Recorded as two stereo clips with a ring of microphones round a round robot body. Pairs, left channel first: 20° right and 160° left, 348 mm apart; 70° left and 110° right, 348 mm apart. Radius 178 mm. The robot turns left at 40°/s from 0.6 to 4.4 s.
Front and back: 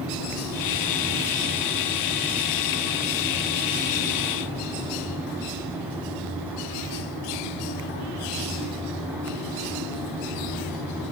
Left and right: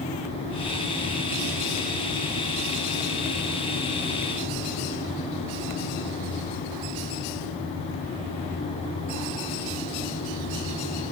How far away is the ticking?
I don't hear ticking.